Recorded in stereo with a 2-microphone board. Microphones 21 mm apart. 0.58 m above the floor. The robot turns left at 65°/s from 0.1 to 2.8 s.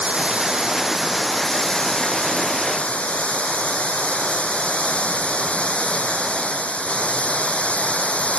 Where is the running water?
105° right; by 8.4 s 80° left.